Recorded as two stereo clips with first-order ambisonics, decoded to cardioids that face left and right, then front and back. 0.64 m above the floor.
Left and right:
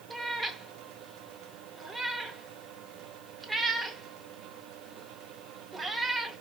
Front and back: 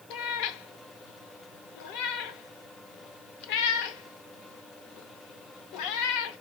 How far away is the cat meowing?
About 0.7 m.